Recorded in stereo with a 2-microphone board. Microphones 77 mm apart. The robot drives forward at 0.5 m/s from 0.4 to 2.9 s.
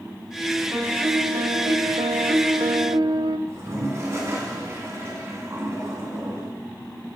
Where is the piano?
40° right (ahead or behind), 1.1 m; by 3.4 s 65° right (ahead or behind), 0.7 m.